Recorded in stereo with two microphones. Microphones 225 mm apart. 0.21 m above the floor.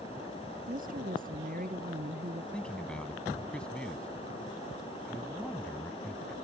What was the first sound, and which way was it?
A woman speaking, 40° right (ahead or behind).